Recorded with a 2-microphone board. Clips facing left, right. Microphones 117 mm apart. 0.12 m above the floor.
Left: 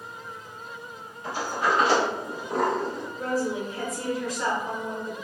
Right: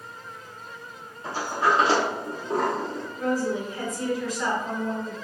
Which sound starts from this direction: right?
A sliding door, at 1.2 s.